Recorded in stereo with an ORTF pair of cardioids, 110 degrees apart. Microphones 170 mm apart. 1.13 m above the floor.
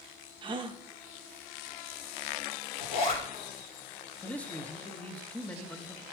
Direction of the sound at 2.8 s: 70° left.